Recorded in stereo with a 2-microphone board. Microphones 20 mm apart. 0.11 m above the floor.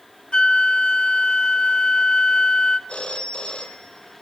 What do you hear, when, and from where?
0.3 s a flute: 60° left (ahead or behind), 1.0 m
2.9 s a phone ringing: 70° left (ahead or behind), 2 m